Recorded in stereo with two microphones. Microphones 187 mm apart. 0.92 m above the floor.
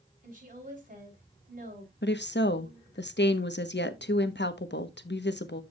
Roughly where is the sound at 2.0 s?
Left.